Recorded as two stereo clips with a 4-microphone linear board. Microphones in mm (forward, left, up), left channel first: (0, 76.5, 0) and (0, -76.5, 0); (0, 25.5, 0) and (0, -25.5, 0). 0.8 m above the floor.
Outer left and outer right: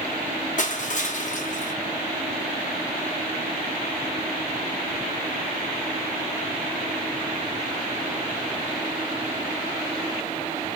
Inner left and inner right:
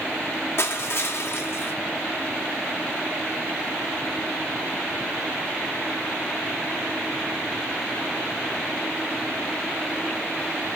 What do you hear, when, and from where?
0.6 s crushing: 55° left (ahead or behind), 0.6 m